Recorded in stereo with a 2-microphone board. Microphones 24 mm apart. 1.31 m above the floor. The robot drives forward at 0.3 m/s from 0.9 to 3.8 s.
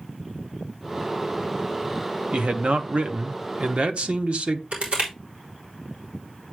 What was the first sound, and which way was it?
A man speaking, 55° right (ahead or behind).